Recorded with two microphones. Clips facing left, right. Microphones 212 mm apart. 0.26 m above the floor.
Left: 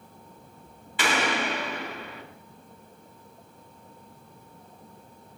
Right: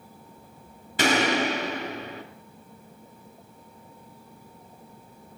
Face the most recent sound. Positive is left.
turn(degrees=-45)  # may be behind; listen again after turning